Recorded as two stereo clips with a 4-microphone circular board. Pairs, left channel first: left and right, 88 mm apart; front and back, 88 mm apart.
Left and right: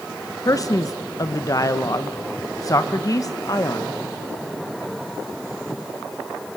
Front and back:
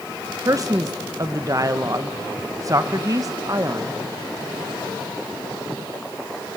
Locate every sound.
0.5 s a man speaking: 135° left, 1.3 m